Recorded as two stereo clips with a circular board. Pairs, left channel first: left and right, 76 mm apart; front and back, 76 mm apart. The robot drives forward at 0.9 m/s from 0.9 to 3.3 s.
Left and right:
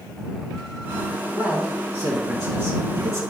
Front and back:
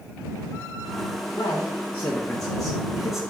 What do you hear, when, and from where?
1.3 s a man speaking: 50° right, 2.5 m; by 3.2 s 100° right, 2 m